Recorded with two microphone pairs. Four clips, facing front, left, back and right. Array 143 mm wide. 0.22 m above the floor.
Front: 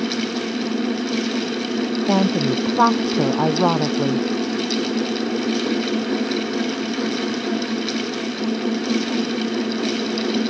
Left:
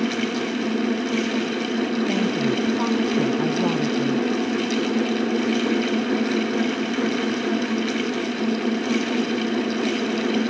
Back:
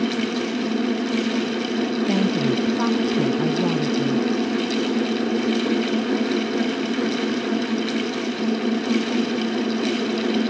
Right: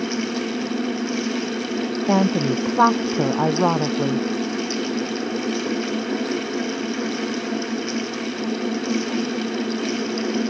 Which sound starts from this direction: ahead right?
A woman speaking, at 2.1 s.